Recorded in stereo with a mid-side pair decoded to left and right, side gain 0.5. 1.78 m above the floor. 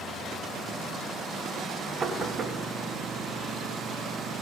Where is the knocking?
40° right, 2.5 m.